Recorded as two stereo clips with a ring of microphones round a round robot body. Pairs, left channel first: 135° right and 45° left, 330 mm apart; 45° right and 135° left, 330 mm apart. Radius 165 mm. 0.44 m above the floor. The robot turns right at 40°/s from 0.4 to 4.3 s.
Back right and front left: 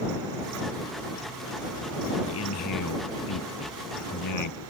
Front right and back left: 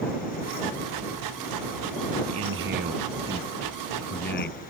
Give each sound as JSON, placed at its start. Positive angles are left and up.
{"t": 2.2, "sound": "a man speaking", "azimuth_deg": 175}